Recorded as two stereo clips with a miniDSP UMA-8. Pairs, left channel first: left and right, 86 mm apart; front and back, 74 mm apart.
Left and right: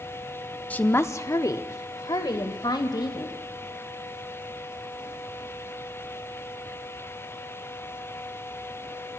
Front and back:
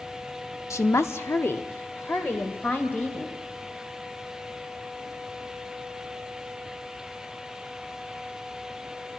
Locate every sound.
0.7 s a woman speaking: 25° left, 0.9 m; by 3.4 s 65° left, 3.5 m